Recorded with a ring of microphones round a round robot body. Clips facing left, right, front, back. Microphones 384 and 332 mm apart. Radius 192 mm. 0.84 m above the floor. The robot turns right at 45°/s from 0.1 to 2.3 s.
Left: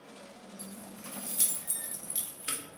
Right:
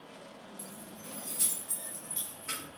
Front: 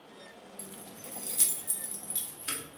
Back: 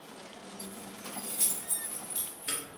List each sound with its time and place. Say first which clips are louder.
0.6 s keys jangling: left 3 dB, back 3 dB; 10° right, 1.1 m; by 2.8 s 70° left, 1.1 m